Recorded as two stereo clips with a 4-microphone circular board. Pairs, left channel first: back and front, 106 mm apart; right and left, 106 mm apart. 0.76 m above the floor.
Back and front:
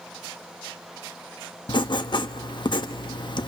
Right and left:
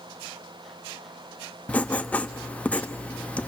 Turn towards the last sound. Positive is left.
turn(degrees=-160)